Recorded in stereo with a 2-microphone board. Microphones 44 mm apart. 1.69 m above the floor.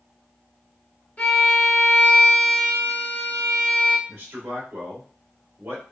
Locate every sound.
1.2 s a violin: 35° left (ahead or behind), 1.1 m
4.1 s a man speaking: 55° right (ahead or behind), 1.7 m